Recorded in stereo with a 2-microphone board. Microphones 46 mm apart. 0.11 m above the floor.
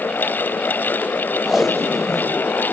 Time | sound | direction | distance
1.4 | tape being pulled | 5° right (ahead or behind) | 1.6 m